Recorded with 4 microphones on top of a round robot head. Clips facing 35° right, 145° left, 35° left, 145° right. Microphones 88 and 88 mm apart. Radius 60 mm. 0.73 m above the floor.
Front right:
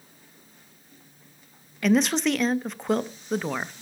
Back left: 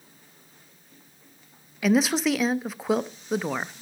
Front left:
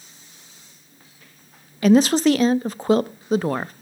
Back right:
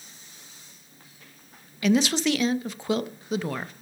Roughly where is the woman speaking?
Ahead left.